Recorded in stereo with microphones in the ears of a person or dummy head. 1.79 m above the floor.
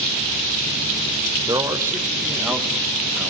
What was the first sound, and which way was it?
A man speaking, 15° right (ahead or behind).